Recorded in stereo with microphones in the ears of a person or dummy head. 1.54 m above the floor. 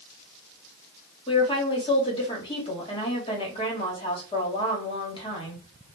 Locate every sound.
1.3 s a woman speaking: 25° left (ahead or behind), 1.3 m